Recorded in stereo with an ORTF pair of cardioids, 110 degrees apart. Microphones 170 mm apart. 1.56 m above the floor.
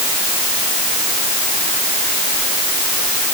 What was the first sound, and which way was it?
Only background noise.